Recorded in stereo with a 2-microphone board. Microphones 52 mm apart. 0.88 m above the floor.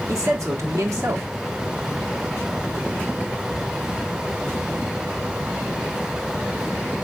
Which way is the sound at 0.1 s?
70° right (ahead or behind).